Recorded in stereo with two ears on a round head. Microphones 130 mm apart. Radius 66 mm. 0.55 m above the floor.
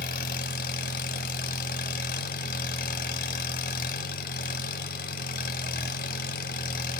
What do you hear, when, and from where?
0.0 s an engine running: 60° left (ahead or behind), 1.0 m